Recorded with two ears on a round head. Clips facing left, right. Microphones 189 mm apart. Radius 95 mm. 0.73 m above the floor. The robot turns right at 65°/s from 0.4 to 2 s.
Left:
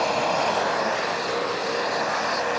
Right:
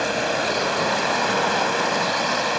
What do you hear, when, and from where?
0.0 s running water: 160° right; by 2.6 s 55° right